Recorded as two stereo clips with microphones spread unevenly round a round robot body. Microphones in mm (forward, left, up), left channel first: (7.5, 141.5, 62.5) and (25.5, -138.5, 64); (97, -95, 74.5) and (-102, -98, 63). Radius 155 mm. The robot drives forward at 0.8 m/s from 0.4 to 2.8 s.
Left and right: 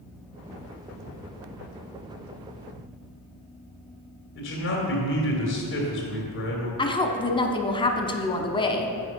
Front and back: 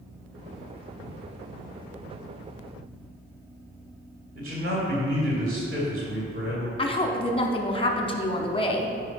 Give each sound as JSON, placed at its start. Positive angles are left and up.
{"t": 4.3, "sound": "a man speaking", "azimuth_deg": 135, "distance_m": 2.0}
{"t": 6.8, "sound": "a woman speaking", "azimuth_deg": 40, "distance_m": 0.8}